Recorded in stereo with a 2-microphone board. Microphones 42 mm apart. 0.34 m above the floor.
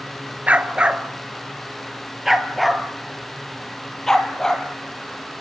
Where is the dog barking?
35° right (ahead or behind), 1.5 m; by 4.7 s 15° left (ahead or behind), 3 m.